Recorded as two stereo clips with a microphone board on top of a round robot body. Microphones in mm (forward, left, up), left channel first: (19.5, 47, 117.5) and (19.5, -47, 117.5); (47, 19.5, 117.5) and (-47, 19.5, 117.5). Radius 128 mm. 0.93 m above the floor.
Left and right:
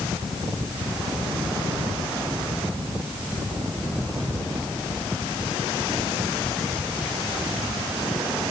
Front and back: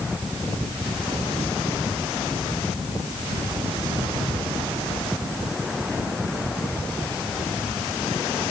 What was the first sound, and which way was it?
Only background noise.